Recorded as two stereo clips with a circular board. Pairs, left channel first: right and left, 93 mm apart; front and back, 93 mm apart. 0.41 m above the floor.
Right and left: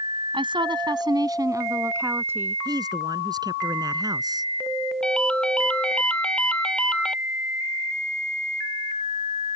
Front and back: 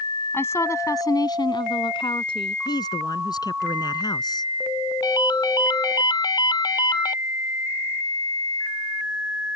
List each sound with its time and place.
0.3 s a woman speaking: 65° left; by 2.5 s 20° left
2.6 s a man speaking: 45° left
5.0 s a ringtone: 15° right